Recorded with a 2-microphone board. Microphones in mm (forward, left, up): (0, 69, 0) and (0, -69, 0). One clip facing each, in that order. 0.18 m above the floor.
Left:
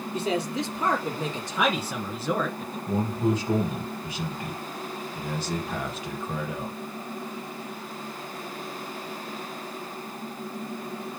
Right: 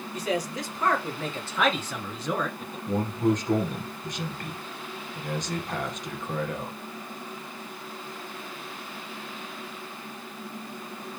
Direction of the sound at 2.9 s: 10° left (ahead or behind).